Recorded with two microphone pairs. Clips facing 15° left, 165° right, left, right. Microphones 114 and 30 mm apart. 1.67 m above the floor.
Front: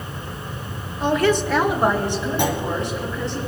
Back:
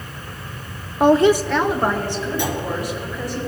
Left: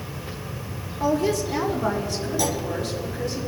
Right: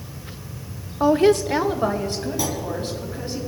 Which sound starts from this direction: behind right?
A woman speaking, at 1.0 s.